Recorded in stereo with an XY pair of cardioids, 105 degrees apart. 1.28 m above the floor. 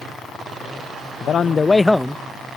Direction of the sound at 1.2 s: 55° left.